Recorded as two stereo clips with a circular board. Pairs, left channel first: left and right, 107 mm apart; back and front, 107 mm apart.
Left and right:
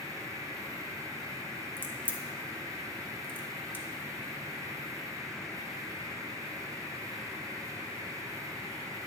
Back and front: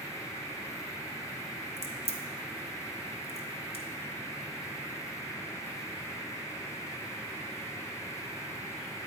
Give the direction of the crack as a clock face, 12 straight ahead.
5 o'clock.